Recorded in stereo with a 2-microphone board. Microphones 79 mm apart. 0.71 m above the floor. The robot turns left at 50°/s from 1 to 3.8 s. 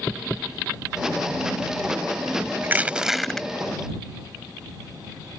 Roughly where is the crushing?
Behind right.